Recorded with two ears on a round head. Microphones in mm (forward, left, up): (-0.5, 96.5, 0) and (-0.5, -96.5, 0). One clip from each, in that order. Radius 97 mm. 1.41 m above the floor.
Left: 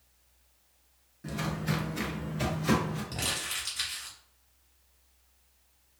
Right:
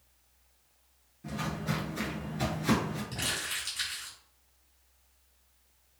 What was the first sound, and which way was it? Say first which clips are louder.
Footsteps: left 1 dB; 20° left (ahead or behind).